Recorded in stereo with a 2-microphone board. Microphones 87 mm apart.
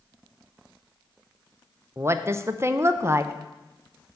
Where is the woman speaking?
30° right (ahead or behind), 0.5 m.